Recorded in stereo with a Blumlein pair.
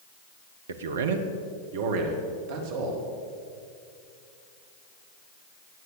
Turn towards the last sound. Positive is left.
turn(degrees=-50)